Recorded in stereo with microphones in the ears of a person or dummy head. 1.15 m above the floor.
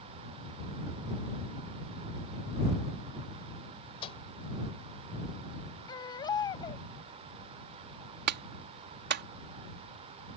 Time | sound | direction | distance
4.0 | a microwave | 30° left (ahead or behind) | ?
5.9 | a baby crying | 25° left (ahead or behind) | ?
8.3 | a clap | 55° right (ahead or behind) | ?